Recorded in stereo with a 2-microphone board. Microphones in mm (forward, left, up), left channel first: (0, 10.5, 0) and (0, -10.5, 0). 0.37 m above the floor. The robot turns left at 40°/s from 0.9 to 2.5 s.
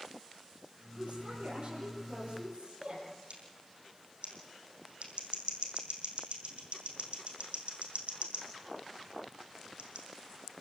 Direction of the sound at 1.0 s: 70° right.